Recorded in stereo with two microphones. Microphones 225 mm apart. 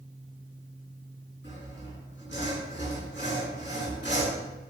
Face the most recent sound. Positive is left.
turn(degrees=55)  # may be behind; listen again after turning